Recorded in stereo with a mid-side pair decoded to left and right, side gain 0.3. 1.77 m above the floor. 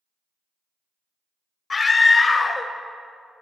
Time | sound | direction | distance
1.7 | a scream | 50° left | 0.9 m